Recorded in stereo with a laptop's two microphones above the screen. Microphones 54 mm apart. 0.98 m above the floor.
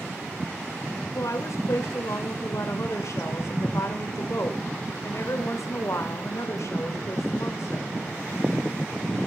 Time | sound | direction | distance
1.1 | a woman speaking | 65° left (ahead or behind) | 3 m